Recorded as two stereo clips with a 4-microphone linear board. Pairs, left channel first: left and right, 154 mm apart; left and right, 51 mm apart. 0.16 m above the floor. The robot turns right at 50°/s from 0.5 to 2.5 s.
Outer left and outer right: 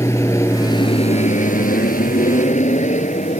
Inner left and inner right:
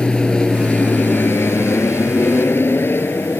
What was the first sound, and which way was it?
An aircraft, 20° left.